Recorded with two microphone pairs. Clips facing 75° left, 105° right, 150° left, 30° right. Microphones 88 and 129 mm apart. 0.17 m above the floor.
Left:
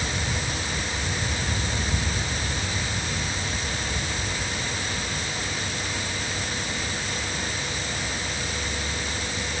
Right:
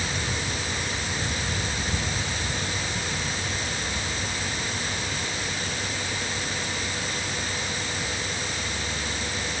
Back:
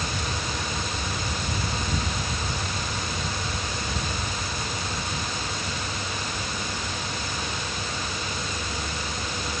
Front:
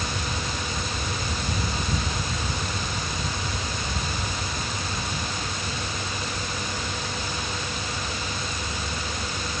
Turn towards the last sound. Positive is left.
No sound to turn to.